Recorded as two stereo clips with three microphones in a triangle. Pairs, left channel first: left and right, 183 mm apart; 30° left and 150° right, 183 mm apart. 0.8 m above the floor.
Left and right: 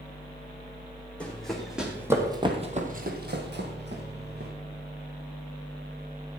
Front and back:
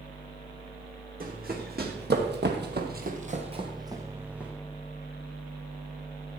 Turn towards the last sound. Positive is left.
turn(degrees=-65)